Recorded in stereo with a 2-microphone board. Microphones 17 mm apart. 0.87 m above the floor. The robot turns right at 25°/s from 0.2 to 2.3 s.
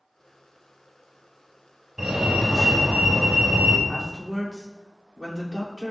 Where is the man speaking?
25° right (ahead or behind), 3 m.